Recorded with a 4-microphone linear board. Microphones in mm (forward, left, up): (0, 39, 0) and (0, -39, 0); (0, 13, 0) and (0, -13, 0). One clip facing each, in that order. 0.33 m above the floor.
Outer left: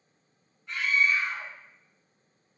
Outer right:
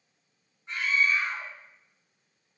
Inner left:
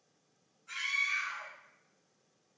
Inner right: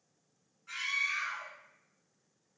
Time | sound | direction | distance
0.7 | a scream | 25° right (ahead or behind) | 1.4 m